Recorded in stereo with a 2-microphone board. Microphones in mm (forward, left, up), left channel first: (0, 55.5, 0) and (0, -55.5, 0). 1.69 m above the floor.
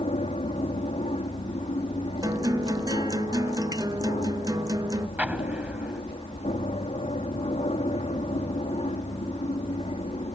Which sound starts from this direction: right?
A guitar, at 2.2 s.